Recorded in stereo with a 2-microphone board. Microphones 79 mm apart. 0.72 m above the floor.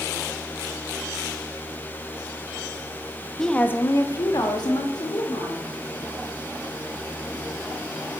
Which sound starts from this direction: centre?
A woman speaking, at 3.4 s.